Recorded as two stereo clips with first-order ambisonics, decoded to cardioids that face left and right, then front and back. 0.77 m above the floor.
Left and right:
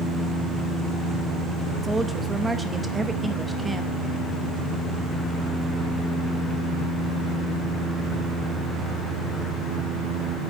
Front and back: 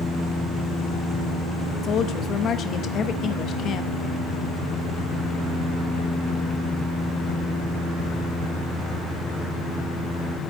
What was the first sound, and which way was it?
A woman speaking, 20° right.